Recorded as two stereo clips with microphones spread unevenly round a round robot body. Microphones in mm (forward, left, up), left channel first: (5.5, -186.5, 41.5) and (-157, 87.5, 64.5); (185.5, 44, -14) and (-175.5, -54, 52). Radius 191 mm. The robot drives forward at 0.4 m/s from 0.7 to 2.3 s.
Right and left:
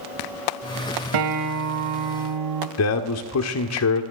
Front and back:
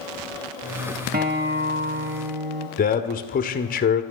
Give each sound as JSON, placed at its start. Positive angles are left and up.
{"t": 1.1, "sound": "a guitar", "azimuth_deg": 125, "distance_m": 1.4}
{"t": 2.8, "sound": "a man speaking", "azimuth_deg": -40, "distance_m": 1.4}